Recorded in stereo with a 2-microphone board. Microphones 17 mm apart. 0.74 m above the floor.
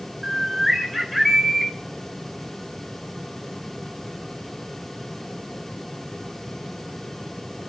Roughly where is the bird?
Centre.